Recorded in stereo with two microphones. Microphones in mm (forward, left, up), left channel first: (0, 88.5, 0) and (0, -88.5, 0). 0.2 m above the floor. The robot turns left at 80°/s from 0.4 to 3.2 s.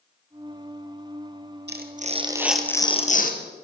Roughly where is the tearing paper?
Right.